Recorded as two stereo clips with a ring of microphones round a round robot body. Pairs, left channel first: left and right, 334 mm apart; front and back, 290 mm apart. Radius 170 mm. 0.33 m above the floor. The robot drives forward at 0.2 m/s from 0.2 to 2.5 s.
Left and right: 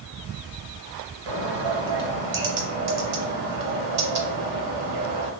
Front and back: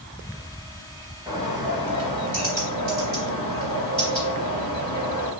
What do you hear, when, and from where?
1.3 s a bird: 100° right, 0.7 m; by 5.3 s 120° right, 0.8 m